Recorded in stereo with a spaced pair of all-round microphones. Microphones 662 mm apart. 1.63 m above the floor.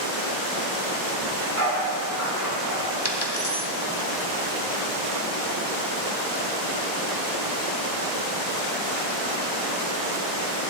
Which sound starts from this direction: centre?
A dog barking, at 1.2 s.